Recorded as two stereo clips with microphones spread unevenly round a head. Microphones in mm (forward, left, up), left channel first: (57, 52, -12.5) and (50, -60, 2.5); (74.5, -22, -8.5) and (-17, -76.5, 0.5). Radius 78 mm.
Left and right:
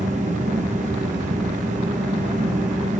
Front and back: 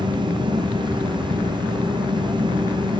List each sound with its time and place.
0.0 s a fan: 105° right, 0.9 m